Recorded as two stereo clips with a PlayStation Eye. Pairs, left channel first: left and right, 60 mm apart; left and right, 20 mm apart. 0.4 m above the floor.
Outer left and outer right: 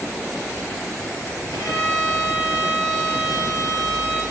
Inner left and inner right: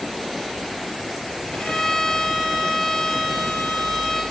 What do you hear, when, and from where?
1.5 s a violin: 80° left, 5.5 m